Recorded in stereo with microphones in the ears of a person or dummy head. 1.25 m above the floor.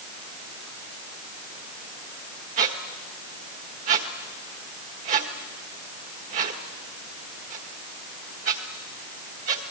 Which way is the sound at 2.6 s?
40° right (ahead or behind).